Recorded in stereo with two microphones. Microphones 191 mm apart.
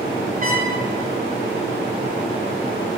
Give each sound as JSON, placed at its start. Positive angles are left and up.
{"t": 0.4, "sound": "a trumpet", "side_deg": -45, "distance_m": 2.5}